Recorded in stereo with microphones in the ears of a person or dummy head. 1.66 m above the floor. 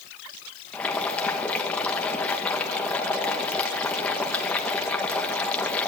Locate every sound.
0.7 s boiling: 5° left (ahead or behind), 2.5 m